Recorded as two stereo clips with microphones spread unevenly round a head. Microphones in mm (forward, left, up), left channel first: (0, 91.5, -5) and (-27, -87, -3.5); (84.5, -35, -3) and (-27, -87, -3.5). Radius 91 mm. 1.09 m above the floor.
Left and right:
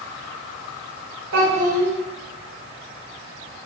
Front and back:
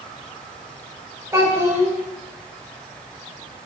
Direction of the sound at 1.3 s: 85° right.